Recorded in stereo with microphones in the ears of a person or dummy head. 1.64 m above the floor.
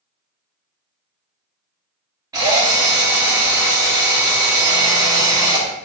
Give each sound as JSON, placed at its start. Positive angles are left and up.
{"t": 2.3, "sound": "a drill", "side_deg": -20, "distance_m": 0.7}